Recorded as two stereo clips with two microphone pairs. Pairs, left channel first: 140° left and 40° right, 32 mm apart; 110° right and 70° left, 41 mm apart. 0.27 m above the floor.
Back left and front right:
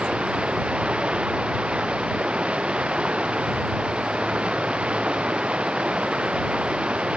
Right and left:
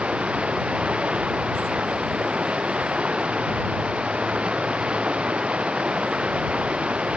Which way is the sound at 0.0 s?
10° left.